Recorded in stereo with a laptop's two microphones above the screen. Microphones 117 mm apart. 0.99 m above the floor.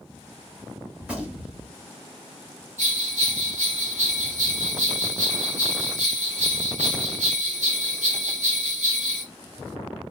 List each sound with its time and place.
1.0 s a gunshot: 10° right (ahead or behind), 1.0 m
2.8 s a bell: 85° right, 1.7 m